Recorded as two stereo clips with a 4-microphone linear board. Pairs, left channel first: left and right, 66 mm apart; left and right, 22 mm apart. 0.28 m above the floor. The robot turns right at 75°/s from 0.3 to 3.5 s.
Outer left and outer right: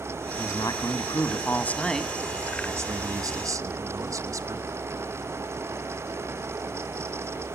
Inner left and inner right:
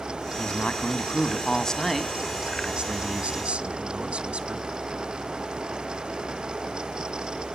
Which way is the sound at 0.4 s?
55° left.